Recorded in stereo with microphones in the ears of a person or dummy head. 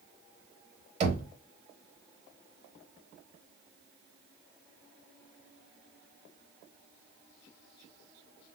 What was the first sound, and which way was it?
Knocking, 30° right (ahead or behind).